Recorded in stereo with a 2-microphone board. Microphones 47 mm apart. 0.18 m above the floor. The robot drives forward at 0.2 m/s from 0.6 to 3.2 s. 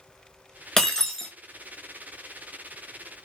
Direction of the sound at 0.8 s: 15° left (ahead or behind).